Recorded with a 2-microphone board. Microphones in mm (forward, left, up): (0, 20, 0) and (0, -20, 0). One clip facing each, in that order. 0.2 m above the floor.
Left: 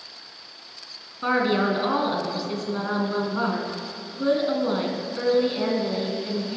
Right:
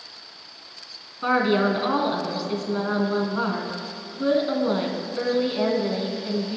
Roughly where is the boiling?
I don't hear boiling.